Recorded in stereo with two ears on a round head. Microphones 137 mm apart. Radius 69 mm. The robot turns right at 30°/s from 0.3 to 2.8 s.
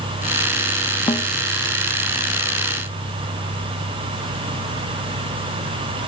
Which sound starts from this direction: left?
A snare drum, at 1.1 s.